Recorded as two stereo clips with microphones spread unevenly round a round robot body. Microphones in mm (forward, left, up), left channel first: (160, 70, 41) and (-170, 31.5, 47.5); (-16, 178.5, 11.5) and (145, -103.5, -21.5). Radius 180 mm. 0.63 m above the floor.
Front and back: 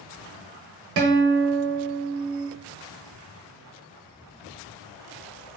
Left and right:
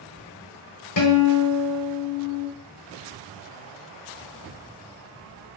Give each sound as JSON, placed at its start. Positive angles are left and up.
{"t": 1.0, "sound": "a guitar", "azimuth_deg": 160, "distance_m": 0.8}